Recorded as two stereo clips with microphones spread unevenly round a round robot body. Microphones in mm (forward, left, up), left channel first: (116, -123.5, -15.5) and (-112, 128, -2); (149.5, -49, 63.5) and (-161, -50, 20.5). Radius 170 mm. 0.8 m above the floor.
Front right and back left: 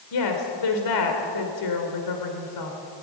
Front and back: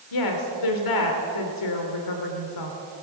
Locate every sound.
0.1 s a woman speaking: 20° right, 2.5 m